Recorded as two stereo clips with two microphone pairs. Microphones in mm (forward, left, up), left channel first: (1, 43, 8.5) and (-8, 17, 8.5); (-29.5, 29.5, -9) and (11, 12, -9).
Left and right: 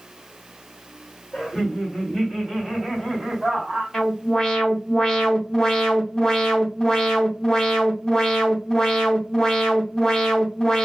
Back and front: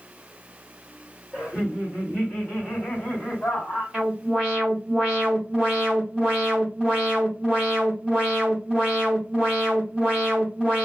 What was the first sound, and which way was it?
Laughter, 100° left.